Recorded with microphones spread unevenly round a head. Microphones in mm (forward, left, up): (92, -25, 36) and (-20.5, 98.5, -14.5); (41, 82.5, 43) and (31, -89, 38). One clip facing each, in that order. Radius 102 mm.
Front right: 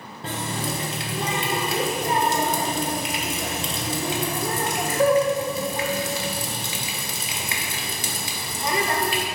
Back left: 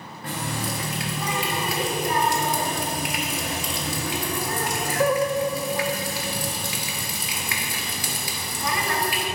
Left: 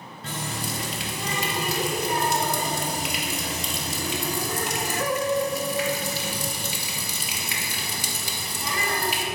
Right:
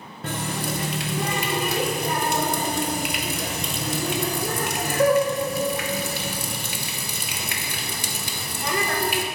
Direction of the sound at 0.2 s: 80° right.